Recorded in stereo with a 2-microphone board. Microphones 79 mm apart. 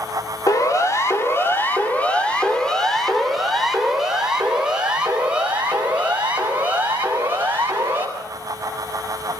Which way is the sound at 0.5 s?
50° left (ahead or behind).